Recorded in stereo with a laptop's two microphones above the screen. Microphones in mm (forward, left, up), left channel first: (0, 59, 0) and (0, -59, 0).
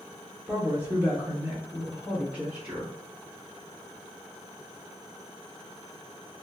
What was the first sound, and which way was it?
A woman speaking, 15° right (ahead or behind).